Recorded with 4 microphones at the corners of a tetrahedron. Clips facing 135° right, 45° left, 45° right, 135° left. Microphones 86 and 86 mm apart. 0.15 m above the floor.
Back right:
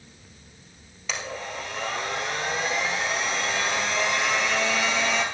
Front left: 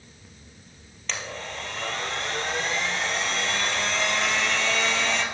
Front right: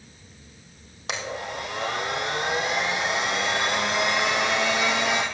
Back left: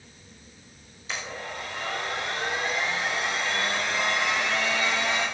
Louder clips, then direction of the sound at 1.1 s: Back right 2 dB, front right 4 dB; 55° right.